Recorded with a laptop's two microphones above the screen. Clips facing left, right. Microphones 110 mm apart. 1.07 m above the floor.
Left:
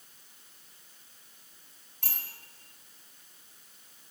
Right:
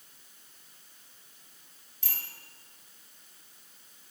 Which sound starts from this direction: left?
A bicycle bell, at 2.0 s.